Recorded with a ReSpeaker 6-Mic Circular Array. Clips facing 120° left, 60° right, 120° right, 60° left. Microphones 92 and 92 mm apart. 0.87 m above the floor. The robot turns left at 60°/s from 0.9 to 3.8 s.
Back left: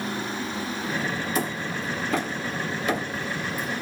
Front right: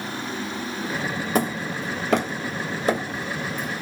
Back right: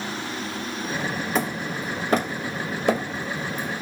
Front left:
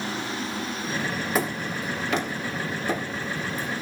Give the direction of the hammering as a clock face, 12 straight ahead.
1 o'clock.